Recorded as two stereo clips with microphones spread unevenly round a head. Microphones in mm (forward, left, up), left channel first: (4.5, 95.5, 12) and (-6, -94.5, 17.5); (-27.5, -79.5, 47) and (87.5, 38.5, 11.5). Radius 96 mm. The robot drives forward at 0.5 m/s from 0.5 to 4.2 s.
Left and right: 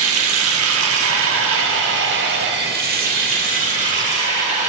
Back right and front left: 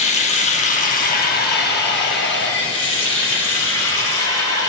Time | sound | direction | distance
0.0 | running water | 95° right | 1.3 m